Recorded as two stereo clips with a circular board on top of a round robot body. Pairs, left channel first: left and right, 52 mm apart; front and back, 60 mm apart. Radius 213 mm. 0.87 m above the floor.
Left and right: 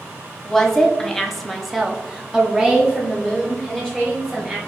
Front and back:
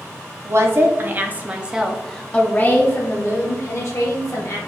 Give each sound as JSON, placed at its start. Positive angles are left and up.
{"t": 0.5, "sound": "a woman speaking", "azimuth_deg": 170, "distance_m": 1.2}